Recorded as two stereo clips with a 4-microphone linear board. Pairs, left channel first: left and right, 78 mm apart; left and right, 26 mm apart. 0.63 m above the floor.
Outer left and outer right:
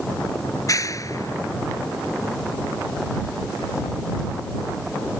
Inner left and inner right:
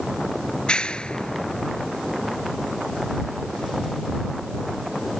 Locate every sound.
0.5 s a clap: 45° left (ahead or behind)